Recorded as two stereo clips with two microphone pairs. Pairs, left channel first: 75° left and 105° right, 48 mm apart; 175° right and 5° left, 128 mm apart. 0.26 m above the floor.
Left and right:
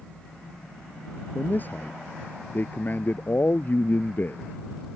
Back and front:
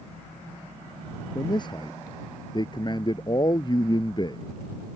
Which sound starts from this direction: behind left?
A man speaking, at 1.4 s.